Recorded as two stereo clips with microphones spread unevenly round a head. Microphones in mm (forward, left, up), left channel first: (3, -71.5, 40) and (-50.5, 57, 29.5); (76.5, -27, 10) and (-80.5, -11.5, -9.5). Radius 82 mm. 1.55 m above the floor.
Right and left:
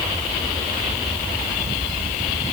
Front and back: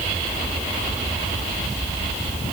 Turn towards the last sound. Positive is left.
No sound to turn to.